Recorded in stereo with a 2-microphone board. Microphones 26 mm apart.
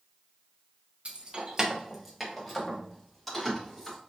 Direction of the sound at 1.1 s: 45° right (ahead or behind).